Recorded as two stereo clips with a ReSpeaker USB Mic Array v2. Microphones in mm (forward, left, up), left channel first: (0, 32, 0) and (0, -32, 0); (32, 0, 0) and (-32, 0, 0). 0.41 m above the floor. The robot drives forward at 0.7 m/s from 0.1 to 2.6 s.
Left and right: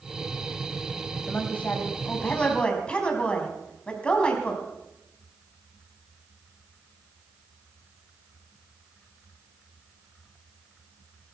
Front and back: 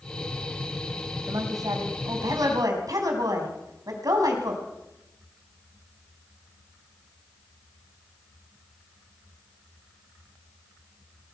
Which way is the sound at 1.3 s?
160° left.